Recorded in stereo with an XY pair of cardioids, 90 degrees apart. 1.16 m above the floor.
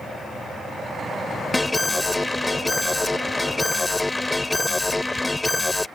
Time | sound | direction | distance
1.5 | an alarm | 10° left | ?